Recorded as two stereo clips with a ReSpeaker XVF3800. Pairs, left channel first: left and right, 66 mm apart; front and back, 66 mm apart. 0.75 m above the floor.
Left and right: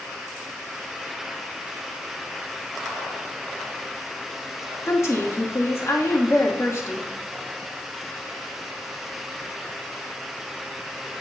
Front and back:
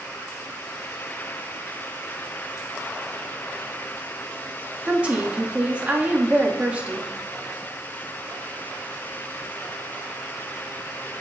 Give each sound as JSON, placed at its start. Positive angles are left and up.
{"t": 4.9, "sound": "a woman speaking", "azimuth_deg": 115, "distance_m": 1.3}